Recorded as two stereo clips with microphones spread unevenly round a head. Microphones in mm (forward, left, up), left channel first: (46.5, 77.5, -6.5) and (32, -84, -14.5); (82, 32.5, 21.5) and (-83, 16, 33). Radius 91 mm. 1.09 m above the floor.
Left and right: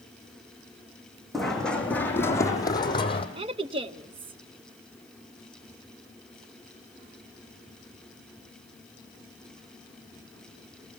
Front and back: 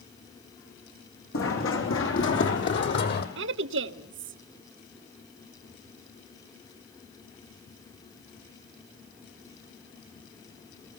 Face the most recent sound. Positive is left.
turn(degrees=-160)